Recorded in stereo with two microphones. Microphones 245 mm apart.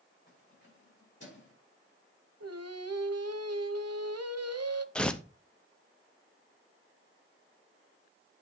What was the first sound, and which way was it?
Keys jangling, 45° left (ahead or behind).